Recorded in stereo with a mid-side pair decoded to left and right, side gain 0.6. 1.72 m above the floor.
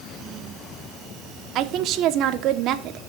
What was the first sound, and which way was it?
A woman speaking, 60° right.